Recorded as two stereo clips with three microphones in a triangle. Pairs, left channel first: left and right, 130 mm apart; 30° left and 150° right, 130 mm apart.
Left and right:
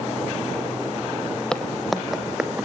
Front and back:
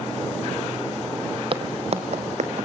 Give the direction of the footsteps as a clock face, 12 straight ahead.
6 o'clock.